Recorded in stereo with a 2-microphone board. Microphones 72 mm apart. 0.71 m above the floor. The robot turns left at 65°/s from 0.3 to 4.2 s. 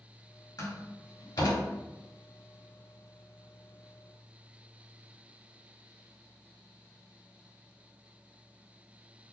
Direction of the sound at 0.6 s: 50° left (ahead or behind).